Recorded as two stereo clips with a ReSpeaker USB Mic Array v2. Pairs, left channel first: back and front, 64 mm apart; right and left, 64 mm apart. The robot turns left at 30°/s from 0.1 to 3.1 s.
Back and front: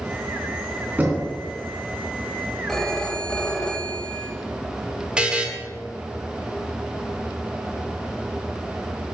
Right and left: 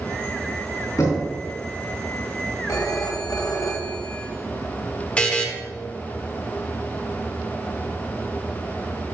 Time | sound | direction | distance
1.0 | knocking | 60° right | 3 m
2.7 | a phone ringing | 95° right | 1.3 m
5.2 | a buzzer | 50° right | 1.0 m